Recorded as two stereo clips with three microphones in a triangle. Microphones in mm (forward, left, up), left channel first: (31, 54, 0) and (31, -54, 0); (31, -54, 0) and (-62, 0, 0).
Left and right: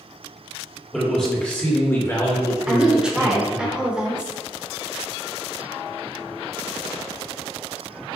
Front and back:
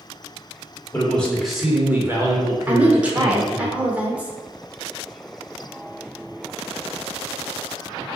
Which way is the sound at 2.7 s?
155° right.